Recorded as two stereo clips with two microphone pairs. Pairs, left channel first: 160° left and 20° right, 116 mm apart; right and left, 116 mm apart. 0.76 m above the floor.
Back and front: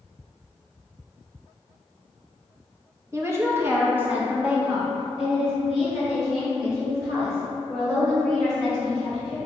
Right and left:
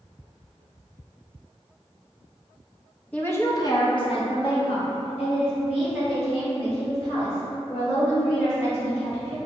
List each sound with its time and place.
3.1 s a woman speaking: 35° right, 0.7 m; by 9.4 s 110° right, 4 m